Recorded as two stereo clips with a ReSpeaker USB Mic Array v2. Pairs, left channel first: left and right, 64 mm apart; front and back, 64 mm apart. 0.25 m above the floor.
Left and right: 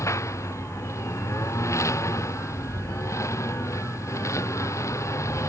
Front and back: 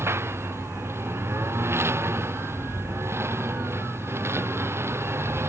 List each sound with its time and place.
0.0 s a lawn mower: 130° left